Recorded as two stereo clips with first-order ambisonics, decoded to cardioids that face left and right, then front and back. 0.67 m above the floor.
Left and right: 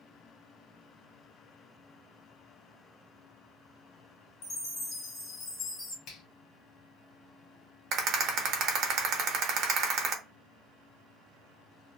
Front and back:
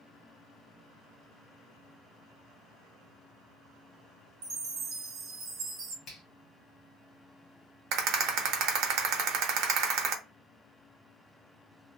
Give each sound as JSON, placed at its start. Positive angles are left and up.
{"t": 4.4, "sound": "a chime", "azimuth_deg": 140, "distance_m": 0.9}
{"t": 6.1, "sound": "a finger snap", "azimuth_deg": 60, "distance_m": 1.1}
{"t": 7.9, "sound": "a rattle", "azimuth_deg": -140, "distance_m": 0.6}